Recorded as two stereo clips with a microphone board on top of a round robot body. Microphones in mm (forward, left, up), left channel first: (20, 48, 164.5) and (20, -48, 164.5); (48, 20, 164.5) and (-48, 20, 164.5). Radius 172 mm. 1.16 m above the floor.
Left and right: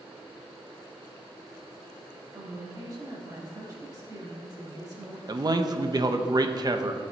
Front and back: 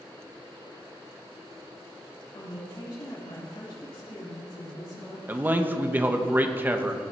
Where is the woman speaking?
40° right, 3 m.